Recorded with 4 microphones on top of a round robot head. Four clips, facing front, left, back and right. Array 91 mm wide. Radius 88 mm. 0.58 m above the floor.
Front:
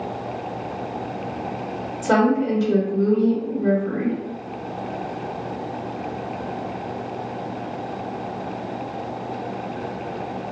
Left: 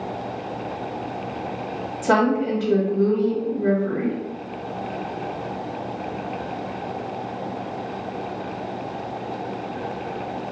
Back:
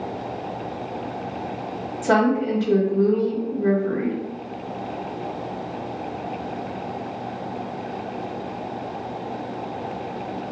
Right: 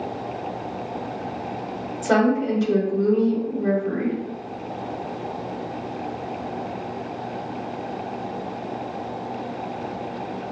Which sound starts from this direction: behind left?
A woman speaking, at 2.0 s.